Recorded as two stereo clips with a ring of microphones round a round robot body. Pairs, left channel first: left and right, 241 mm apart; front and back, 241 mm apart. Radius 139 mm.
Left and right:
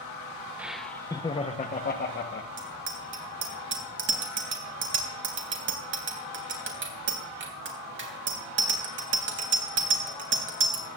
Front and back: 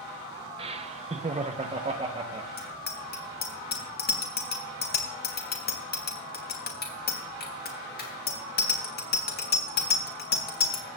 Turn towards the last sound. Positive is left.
turn(degrees=-50)